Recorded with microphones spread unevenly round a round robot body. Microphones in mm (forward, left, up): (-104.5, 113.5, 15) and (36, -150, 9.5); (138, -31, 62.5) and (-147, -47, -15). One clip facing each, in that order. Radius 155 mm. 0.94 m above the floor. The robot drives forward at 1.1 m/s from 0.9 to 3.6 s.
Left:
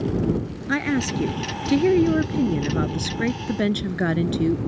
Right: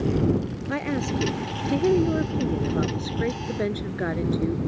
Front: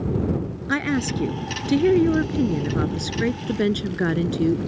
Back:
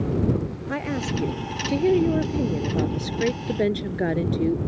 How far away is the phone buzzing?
No phone buzzing in this recording.